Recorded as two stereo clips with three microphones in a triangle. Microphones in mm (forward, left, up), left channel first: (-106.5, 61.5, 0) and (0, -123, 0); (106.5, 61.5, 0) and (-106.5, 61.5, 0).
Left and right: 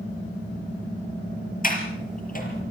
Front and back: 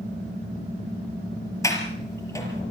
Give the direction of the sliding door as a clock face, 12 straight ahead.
10 o'clock.